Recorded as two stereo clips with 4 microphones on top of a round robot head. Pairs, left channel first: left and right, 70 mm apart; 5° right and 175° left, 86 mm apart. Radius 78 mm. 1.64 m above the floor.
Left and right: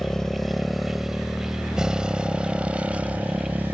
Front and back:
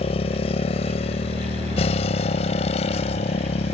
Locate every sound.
0.0 s a motorcycle: 5° left; by 3.7 s 15° right